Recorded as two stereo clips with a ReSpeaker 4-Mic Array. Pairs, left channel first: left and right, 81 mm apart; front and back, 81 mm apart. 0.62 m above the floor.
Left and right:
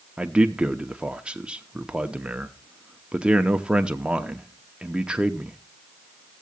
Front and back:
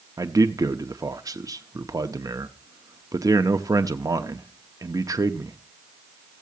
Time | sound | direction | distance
0.2 | a man speaking | 165° right | 0.8 m